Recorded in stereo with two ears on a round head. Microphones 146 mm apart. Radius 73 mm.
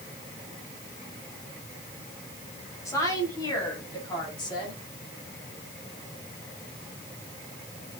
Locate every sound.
2.9 s a woman speaking: 20° left (ahead or behind), 5.5 m; by 4.8 s 25° left (ahead or behind), 7.5 m